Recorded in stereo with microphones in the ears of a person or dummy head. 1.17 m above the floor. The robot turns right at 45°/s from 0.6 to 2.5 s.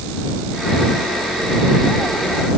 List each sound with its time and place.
Only background noise.